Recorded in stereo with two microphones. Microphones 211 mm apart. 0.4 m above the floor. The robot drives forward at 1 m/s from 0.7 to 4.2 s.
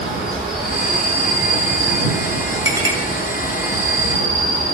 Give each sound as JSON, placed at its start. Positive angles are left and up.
{"t": 0.0, "sound": "an insect", "side_deg": -55, "distance_m": 3.0}
{"t": 2.6, "sound": "a clink", "side_deg": -15, "distance_m": 1.4}